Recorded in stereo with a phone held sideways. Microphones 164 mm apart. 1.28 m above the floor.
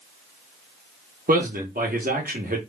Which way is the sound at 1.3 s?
60° right (ahead or behind).